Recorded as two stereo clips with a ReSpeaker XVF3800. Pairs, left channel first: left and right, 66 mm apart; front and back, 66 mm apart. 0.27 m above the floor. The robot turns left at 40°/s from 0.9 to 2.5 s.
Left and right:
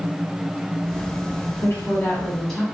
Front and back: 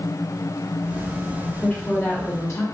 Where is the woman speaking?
45° left, 1.7 m; by 2.6 s 10° left, 1.7 m.